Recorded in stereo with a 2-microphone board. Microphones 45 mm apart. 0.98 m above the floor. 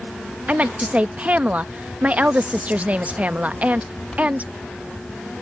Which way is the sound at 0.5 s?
30° right (ahead or behind).